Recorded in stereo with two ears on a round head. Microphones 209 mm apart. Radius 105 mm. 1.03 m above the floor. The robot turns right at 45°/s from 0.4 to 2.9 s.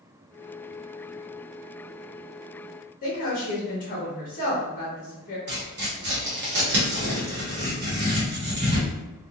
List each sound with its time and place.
3.0 s a woman speaking: 35° left (ahead or behind), 1.2 m
5.5 s tearing paper: 50° right (ahead or behind), 1.0 m